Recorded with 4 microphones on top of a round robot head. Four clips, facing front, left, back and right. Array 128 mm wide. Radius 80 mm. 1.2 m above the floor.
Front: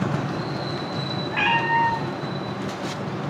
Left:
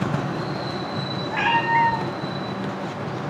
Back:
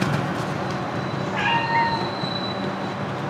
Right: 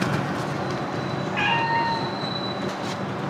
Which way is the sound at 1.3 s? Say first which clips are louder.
Left 4 dB, even; 40° left.